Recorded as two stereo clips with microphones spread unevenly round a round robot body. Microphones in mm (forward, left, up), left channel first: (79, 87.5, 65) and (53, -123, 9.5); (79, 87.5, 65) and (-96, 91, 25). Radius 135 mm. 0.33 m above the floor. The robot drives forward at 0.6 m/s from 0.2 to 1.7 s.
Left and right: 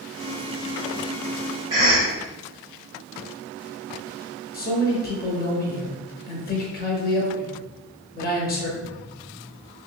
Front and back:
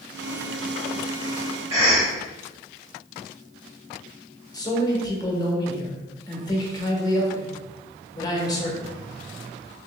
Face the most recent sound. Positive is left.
turn(degrees=70)